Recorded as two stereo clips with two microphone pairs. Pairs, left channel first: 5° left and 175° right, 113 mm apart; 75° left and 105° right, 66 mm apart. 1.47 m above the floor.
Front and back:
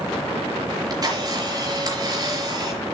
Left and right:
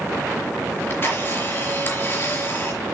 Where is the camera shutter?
130° left, 4.5 m.